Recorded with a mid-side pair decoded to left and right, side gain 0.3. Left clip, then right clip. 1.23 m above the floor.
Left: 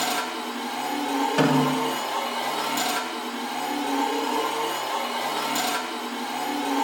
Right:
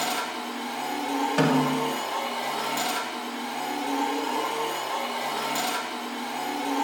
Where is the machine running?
15° left, 1.9 m.